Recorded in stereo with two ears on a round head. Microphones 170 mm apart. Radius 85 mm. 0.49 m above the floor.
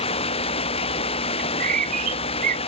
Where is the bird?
45° right (ahead or behind).